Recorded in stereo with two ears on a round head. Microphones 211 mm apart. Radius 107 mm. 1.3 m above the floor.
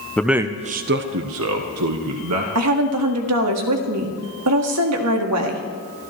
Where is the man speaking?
5° left (ahead or behind), 0.7 m; by 2.5 s 80° right, 1.8 m.